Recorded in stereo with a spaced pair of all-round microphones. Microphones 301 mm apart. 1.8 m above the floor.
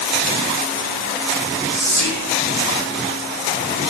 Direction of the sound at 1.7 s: 50° right (ahead or behind).